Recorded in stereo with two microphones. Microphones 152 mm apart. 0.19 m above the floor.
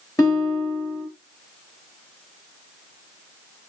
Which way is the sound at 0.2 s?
25° left (ahead or behind).